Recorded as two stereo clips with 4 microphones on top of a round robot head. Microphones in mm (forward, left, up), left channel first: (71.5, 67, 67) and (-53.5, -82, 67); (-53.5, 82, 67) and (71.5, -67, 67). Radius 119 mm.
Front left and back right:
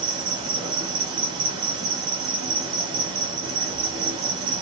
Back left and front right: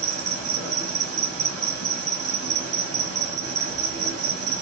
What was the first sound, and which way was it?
An insect, 60° right.